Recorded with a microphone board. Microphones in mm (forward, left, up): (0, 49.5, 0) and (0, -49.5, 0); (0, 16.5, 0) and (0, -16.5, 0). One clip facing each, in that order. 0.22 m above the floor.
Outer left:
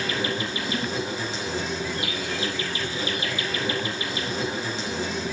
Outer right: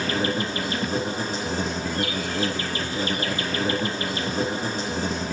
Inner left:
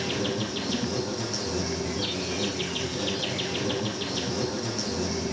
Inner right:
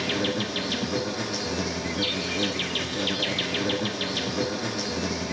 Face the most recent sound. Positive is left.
turn(degrees=-40)  # may be behind; listen again after turning